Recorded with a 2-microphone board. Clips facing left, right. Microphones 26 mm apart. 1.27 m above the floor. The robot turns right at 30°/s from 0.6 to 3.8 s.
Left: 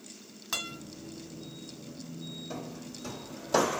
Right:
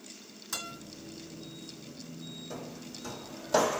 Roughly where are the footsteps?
Centre.